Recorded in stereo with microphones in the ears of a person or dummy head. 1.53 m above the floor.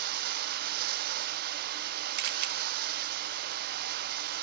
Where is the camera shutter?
45° right (ahead or behind), 1.2 m.